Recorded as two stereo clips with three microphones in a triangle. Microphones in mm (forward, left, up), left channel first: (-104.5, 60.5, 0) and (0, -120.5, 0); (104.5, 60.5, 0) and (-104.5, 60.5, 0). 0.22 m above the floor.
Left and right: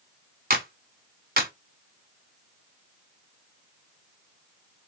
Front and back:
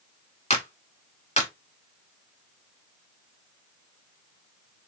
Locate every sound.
0.5 s a clap: 45° right, 1.3 m